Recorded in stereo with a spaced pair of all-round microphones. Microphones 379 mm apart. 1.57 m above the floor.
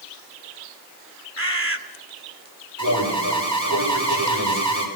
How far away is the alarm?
About 6.5 m.